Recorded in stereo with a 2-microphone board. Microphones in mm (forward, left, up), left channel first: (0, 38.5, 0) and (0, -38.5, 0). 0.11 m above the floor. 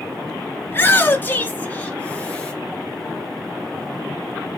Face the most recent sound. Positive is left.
turn(degrees=10)  # may be behind; listen again after turning